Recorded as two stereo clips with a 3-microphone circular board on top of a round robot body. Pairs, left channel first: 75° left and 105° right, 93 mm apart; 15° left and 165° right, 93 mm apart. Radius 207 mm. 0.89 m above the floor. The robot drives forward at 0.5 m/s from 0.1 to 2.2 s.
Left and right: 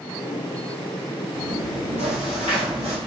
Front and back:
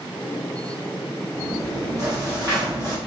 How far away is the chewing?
About 0.8 m.